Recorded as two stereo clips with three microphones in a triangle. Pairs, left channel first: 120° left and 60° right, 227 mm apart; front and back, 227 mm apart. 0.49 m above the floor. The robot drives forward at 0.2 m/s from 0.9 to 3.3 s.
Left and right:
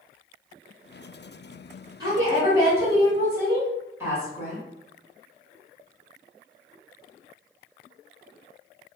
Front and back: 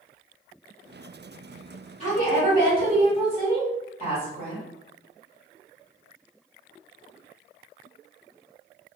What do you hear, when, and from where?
2.0 s a woman speaking: 130° right, 1.5 m; by 4.6 s 135° right, 1.6 m